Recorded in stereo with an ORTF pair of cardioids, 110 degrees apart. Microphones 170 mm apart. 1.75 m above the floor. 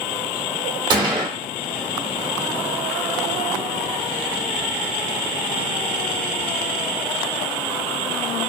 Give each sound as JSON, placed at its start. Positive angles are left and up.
{"t": 0.9, "sound": "a gunshot", "azimuth_deg": -25, "distance_m": 0.9}